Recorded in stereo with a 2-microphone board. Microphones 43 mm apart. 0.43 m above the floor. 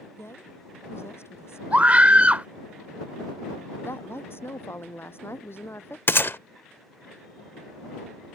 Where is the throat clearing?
No throat clearing in this recording.